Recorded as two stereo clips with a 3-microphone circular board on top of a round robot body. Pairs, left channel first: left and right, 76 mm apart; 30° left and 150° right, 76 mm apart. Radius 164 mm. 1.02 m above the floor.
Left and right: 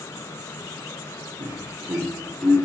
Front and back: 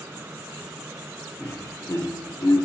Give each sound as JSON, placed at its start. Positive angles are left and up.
{"t": 1.4, "sound": "laughter", "azimuth_deg": -45, "distance_m": 1.0}